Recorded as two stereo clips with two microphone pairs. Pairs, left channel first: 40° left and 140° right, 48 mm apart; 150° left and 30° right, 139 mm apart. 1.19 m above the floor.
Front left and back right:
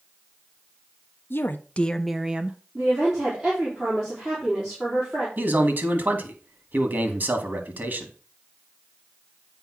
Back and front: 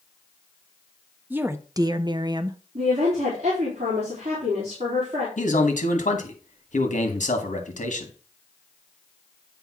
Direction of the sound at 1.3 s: 40° left.